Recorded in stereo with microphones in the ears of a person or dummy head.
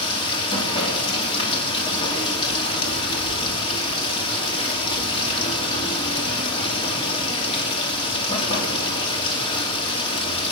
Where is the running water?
30° left (ahead or behind), 2 m.